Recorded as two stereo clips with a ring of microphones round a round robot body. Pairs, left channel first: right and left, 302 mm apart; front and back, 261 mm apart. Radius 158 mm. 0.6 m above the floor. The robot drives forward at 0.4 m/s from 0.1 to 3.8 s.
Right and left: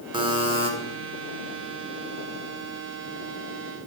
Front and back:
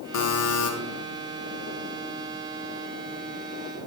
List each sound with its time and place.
0.1 s a buzzer: 15° left, 1.5 m; by 0.7 s 20° left, 1.4 m